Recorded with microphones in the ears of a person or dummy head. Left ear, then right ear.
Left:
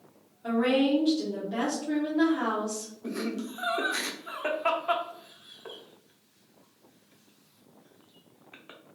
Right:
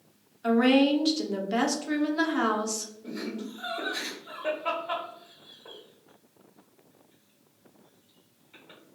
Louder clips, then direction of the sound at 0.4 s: Right 3 dB; 55° right (ahead or behind).